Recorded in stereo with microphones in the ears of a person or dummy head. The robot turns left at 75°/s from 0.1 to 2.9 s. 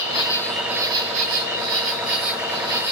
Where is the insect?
40° left, 1.7 m; by 2.9 s 170° right, 1.7 m.